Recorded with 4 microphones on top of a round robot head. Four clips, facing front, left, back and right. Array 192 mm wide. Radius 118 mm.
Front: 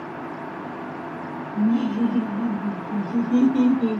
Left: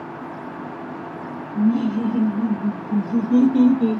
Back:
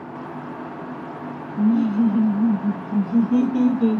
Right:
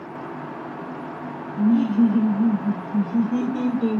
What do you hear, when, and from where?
1.6 s laughter: 80° left, 2 m; by 4.0 s 140° left, 1.2 m